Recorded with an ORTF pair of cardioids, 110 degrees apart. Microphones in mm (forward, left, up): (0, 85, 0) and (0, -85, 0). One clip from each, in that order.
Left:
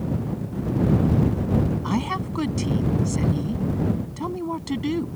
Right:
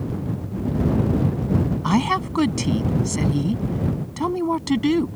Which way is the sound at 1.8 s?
40° right.